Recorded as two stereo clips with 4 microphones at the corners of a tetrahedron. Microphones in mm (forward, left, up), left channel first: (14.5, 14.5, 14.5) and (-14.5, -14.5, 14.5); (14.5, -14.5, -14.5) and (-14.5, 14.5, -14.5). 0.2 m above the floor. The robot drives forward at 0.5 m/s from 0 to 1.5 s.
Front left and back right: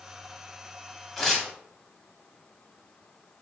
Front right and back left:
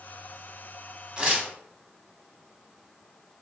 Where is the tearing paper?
115° left, 0.8 m; by 1.5 s 140° left, 0.8 m.